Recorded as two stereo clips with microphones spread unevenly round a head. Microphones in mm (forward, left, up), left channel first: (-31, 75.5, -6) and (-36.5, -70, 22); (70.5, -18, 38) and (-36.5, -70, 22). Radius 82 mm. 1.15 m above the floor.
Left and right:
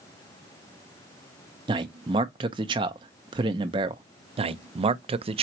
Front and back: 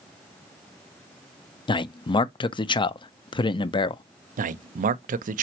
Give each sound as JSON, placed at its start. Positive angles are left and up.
{"t": 1.7, "sound": "a man speaking", "azimuth_deg": -25, "distance_m": 0.5}
{"t": 4.4, "sound": "a man speaking", "azimuth_deg": -145, "distance_m": 0.5}